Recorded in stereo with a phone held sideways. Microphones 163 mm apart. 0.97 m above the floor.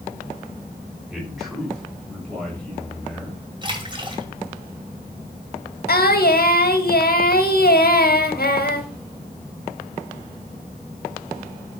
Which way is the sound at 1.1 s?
Centre (ahead or behind).